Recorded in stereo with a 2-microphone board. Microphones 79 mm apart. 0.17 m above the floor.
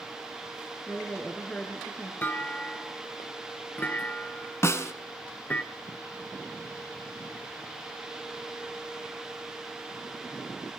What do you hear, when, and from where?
0.9 s a woman speaking: 15° left (ahead or behind), 2.5 m
2.2 s a clunk: 25° left (ahead or behind), 0.8 m
4.6 s a snare drum: 40° left (ahead or behind), 1.1 m